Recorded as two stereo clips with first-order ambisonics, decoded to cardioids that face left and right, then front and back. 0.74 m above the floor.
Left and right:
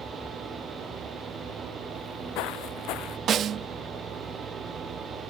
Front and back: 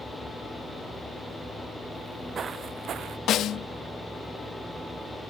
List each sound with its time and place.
1.9 s footsteps: 105° left; by 3.2 s 130° left
3.3 s a snare drum: 40° right